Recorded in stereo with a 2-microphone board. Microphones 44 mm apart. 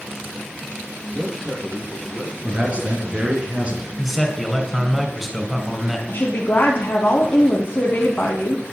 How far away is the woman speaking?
About 1.4 m.